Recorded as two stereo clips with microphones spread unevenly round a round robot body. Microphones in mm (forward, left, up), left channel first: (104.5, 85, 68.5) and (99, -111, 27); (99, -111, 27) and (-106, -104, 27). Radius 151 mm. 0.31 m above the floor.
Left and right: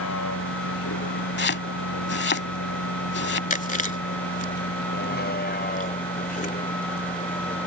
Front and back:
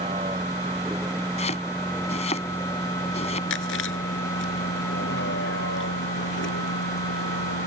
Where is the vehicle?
105° left; by 7.7 s 35° left.